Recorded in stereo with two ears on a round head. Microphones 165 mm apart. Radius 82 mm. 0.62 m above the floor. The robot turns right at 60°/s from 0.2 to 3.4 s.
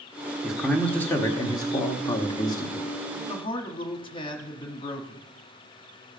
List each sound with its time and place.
0.4 s a man speaking: 5° right (ahead or behind), 1.2 m; by 2.9 s 15° left (ahead or behind), 1.2 m
3.2 s a man speaking: 20° left (ahead or behind), 1.2 m; by 5.3 s 25° left (ahead or behind), 1.2 m